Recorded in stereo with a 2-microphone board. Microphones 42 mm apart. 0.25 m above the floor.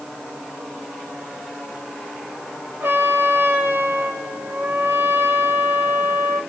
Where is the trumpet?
75° right (ahead or behind), 6 m.